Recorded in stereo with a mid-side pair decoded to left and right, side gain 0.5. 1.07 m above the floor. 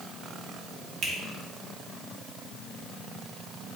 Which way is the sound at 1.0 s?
60° right.